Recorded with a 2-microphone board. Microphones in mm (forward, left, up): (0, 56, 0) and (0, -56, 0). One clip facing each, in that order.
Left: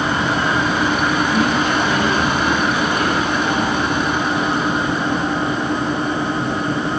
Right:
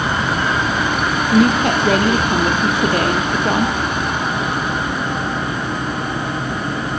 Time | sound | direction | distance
1.3 | a woman speaking | 65° right (ahead or behind) | 5 m